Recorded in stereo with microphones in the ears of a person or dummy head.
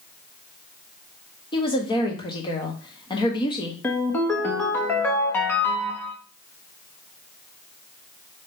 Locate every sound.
1.5 s a woman speaking: 20° left (ahead or behind), 1.0 m
3.8 s a ringtone: 5° left (ahead or behind), 1.0 m